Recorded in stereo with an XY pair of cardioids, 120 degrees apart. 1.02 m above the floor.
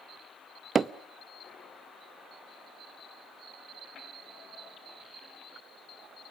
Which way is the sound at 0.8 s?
30° right.